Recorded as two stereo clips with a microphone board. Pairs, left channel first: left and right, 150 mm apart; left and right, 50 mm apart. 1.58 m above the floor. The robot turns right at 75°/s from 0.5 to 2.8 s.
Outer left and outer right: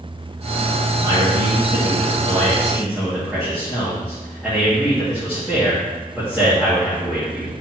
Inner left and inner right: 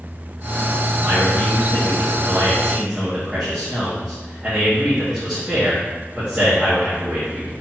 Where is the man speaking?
135° right, 2.5 m; by 7.5 s straight ahead, 2.5 m.